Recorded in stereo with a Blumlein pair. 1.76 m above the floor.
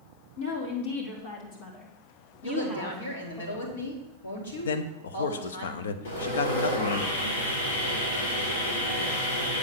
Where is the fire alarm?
I don't hear a fire alarm.